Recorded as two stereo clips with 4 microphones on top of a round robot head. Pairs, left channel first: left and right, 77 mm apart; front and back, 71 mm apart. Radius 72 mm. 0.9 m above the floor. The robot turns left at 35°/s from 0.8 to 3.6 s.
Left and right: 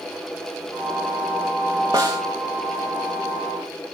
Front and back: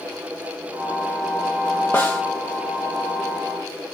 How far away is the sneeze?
No sneeze in this recording.